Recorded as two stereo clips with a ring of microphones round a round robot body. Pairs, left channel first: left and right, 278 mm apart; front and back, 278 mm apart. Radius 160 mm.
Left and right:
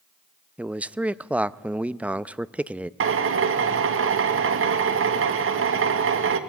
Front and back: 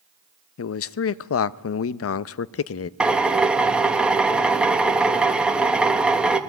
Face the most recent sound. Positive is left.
turn(degrees=-95)